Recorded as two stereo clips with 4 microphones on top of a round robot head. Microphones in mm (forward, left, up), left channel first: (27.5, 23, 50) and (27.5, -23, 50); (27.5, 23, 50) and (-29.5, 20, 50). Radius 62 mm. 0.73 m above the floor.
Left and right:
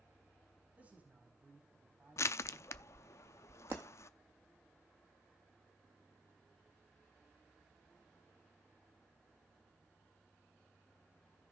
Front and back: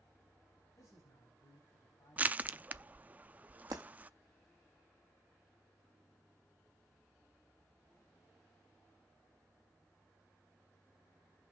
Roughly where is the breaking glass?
Behind right.